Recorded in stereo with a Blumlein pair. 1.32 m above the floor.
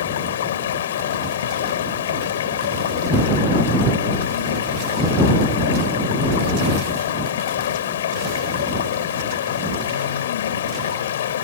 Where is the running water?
60° left.